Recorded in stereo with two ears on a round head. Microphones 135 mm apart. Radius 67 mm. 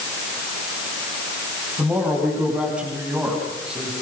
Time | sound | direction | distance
1.8 | a woman speaking | 10° right (ahead or behind) | 9.5 m